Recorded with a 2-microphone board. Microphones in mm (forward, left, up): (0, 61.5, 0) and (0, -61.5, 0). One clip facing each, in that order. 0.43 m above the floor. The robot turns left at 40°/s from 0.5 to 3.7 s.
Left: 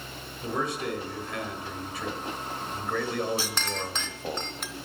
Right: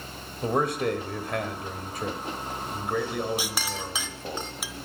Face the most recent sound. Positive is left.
turn(degrees=-5)  # may be behind; listen again after turning